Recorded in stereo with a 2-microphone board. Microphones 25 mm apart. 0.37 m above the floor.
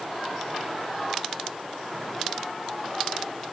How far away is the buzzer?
I don't hear a buzzer.